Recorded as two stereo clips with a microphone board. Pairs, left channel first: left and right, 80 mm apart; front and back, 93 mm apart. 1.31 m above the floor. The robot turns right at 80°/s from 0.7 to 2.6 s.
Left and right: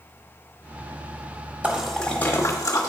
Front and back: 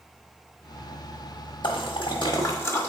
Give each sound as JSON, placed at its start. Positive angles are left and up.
{"t": 1.6, "sound": "a splash", "azimuth_deg": -25, "distance_m": 1.4}